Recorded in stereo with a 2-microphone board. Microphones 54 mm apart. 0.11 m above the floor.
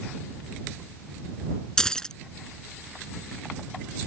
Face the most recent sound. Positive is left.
turn(degrees=15)  # may be behind; listen again after turning